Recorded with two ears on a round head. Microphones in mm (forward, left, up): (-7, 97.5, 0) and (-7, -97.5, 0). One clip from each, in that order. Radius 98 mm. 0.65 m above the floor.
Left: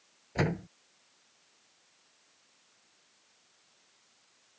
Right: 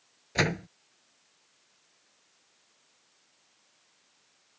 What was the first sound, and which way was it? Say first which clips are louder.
A door slam: right 5 dB; 75° right (ahead or behind).